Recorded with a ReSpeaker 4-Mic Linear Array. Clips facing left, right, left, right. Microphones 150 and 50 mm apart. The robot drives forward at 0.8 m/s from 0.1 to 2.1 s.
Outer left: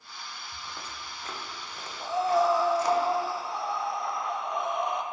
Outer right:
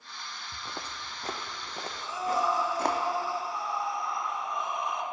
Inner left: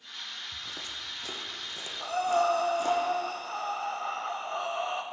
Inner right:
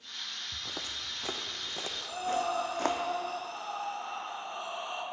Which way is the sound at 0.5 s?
30° right (ahead or behind).